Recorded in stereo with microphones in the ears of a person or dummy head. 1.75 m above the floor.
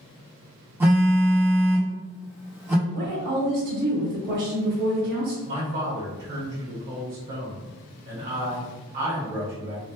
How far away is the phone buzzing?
About 0.6 m.